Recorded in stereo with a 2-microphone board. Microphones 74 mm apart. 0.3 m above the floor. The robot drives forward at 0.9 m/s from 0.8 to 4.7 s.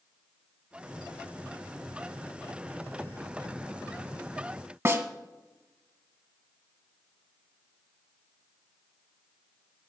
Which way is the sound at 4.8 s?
35° right (ahead or behind).